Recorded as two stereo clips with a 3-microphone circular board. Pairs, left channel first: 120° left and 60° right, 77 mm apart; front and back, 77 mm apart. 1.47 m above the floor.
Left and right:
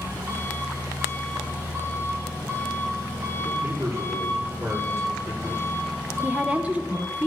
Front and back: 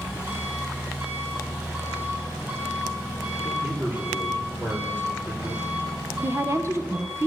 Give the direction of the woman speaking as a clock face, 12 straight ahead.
4 o'clock.